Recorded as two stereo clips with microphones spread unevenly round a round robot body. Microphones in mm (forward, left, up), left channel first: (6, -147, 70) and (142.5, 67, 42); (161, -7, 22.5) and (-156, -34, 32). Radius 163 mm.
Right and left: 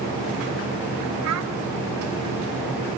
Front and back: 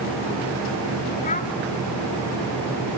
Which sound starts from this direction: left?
A child speaking, at 1.2 s.